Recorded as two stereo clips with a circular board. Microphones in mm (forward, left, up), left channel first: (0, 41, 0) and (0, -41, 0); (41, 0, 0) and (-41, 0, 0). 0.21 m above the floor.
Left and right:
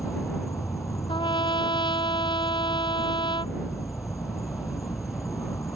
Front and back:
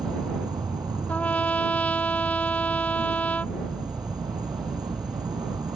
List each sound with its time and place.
0.0 s an insect: 140° left
1.1 s a trumpet: 70° left